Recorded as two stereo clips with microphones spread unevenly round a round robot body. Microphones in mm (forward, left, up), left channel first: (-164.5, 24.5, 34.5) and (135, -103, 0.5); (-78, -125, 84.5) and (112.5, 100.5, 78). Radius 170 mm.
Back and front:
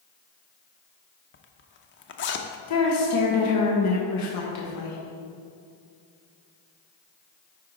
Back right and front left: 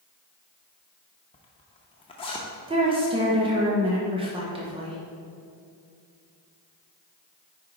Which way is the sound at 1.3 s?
165° left.